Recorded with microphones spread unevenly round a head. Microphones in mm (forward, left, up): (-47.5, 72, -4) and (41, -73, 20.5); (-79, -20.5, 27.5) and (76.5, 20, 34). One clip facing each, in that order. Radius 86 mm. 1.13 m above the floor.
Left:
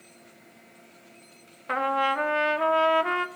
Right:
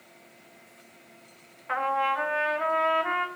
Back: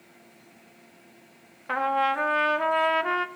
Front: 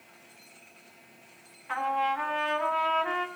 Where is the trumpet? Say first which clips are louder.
Left 2 dB, back 3 dB; 165° left, 0.7 m.